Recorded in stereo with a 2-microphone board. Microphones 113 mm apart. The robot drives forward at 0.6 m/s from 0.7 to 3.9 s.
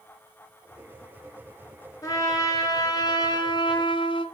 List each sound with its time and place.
2.0 s a trumpet: 35° left (ahead or behind), 2.5 m; by 4.2 s 50° left (ahead or behind), 1.8 m